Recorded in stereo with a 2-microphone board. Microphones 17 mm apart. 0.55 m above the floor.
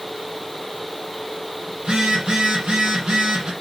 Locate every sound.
1.8 s a phone buzzing: 85° right, 6 m